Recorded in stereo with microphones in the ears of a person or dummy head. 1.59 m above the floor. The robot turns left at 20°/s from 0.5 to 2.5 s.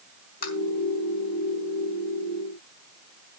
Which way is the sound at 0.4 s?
50° left (ahead or behind).